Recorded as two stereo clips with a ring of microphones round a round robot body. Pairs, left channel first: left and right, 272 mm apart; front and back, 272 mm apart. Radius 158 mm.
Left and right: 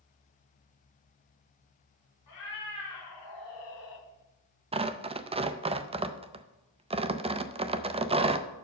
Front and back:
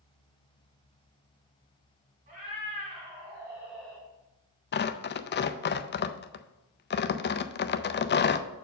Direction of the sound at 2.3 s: 110° left.